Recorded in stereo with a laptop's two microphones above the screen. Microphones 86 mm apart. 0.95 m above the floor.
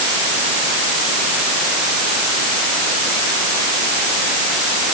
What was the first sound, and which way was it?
Only background noise.